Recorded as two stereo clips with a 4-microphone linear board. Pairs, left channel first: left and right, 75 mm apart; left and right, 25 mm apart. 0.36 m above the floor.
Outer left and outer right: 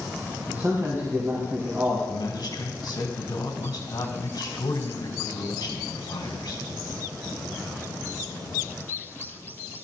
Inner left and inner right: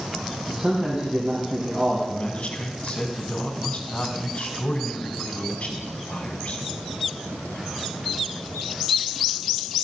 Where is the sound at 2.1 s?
65° left (ahead or behind), 2.5 m.